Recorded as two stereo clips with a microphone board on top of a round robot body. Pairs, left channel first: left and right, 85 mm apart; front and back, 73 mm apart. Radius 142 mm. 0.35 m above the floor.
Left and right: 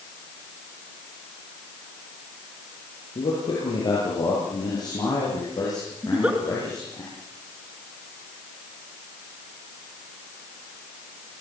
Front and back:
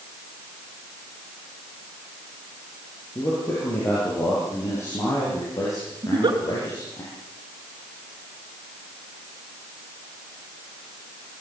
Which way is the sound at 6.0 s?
165° right.